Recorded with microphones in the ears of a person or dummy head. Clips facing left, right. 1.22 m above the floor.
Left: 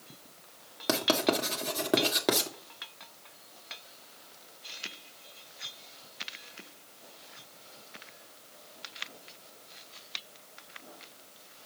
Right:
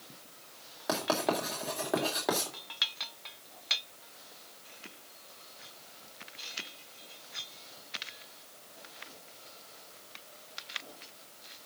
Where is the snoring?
I don't hear snoring.